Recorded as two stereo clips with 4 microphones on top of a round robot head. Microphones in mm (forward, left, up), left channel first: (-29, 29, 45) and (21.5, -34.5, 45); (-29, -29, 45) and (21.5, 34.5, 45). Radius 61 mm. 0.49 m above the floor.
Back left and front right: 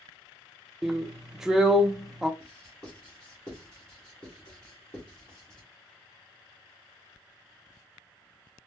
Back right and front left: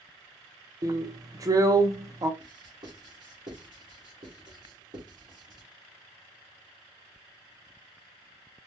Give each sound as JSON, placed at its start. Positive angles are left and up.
{"t": 0.8, "sound": "a drill", "azimuth_deg": 30, "distance_m": 0.6}
{"t": 2.4, "sound": "writing", "azimuth_deg": 50, "distance_m": 2.0}